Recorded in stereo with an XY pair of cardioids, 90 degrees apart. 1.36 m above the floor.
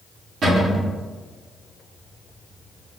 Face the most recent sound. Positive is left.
turn(degrees=-65)